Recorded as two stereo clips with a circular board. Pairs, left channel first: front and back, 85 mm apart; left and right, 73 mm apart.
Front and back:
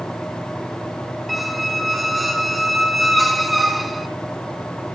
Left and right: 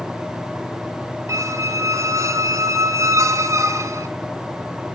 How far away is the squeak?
About 0.9 m.